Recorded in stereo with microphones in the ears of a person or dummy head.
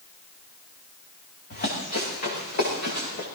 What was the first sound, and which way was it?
Running footsteps, 45° left (ahead or behind).